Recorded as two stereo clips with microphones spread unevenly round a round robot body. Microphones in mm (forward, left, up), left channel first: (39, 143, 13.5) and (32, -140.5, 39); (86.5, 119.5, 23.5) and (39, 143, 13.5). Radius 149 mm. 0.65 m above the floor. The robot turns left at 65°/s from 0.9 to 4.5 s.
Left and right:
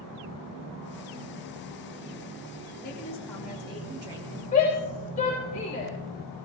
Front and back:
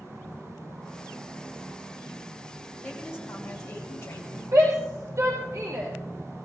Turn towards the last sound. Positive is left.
turn(degrees=150)